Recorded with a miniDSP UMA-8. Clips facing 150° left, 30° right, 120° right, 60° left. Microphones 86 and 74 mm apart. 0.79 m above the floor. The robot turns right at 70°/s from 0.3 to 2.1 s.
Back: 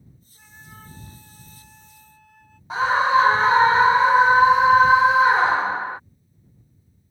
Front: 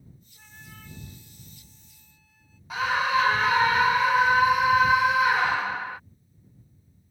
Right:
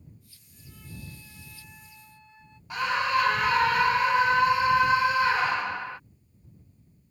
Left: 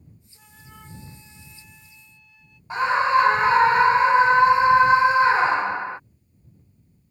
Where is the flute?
60° left; by 2.6 s 175° right.